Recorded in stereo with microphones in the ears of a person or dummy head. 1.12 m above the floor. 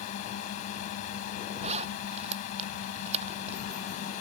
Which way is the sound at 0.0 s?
45° left (ahead or behind).